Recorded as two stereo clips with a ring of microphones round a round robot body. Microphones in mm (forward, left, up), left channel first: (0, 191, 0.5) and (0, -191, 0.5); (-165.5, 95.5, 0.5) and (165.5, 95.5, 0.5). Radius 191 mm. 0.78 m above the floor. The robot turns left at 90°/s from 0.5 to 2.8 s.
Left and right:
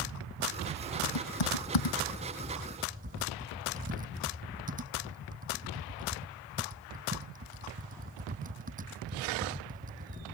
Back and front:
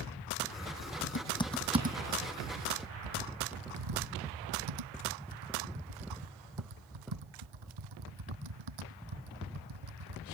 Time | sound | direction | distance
1.0 | typing on a keyboard | 140° left | ?